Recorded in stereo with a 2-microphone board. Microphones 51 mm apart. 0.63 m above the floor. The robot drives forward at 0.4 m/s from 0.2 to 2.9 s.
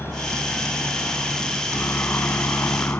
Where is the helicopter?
45° left (ahead or behind); by 3.0 s 40° left (ahead or behind).